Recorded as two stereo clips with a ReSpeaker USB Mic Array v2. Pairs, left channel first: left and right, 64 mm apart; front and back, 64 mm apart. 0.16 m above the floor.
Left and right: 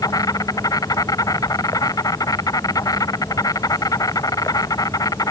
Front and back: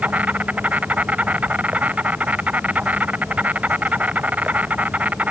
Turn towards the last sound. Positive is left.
turn(degrees=115)